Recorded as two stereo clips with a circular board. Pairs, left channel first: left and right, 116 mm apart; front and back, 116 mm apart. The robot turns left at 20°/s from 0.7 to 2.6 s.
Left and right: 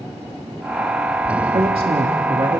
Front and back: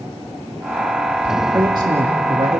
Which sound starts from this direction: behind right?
A man speaking, at 1.5 s.